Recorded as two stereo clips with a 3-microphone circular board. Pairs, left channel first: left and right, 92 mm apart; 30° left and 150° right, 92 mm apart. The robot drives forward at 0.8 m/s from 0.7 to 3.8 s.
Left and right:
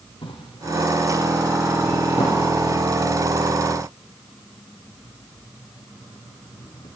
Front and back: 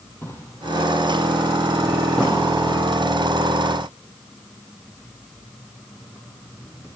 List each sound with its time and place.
0.2 s a drawer: 95° left, 3 m; by 6.9 s 130° left, 4 m